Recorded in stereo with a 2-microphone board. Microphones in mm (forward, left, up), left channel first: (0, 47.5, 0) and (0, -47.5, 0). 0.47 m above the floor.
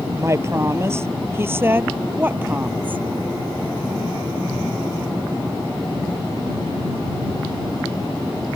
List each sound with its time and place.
0.2 s a woman speaking: 30° right (ahead or behind); by 3.0 s 15° right (ahead or behind)